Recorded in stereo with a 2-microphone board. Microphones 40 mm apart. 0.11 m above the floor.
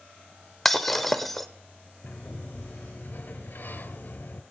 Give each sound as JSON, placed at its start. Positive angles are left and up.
{"t": 0.7, "sound": "breaking glass", "side_deg": 5, "distance_m": 0.6}
{"t": 2.0, "sound": "a sliding door", "side_deg": 45, "distance_m": 0.7}